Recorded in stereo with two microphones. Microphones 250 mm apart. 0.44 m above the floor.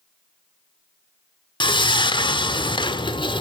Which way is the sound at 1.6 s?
20° left (ahead or behind).